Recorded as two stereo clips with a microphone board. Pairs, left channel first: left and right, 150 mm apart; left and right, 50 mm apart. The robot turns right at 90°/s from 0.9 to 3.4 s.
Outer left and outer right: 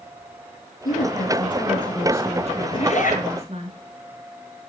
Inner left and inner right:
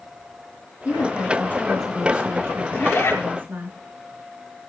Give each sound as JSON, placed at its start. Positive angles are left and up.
{"t": 0.8, "sound": "a woman speaking", "azimuth_deg": 90, "distance_m": 6.0}
{"t": 2.7, "sound": "a zipper", "azimuth_deg": 35, "distance_m": 5.5}